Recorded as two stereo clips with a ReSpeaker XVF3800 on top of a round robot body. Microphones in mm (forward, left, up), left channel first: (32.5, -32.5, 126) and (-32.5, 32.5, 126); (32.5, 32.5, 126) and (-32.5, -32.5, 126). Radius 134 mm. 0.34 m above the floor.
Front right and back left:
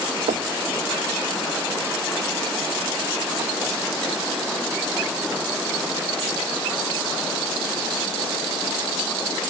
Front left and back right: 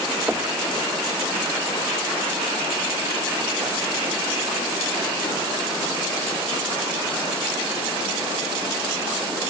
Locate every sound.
0.3 s knocking: 150° left